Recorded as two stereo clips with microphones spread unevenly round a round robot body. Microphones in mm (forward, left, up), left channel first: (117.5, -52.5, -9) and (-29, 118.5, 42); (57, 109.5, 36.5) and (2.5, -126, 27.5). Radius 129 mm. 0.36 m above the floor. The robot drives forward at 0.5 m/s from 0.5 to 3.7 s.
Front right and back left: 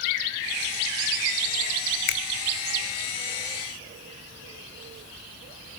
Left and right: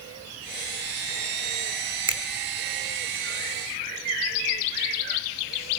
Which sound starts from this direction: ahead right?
A finger snap, at 2.1 s.